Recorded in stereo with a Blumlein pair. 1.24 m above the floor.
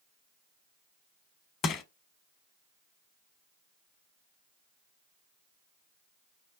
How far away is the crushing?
About 0.8 m.